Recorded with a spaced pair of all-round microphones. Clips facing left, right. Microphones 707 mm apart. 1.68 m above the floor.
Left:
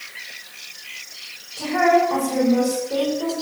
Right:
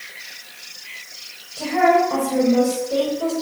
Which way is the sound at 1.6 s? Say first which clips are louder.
Right 1 dB; 25° right (ahead or behind).